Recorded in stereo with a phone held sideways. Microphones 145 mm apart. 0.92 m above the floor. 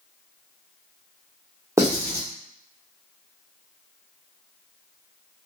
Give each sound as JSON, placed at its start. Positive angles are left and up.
{"t": 1.8, "sound": "writing", "side_deg": -20, "distance_m": 1.1}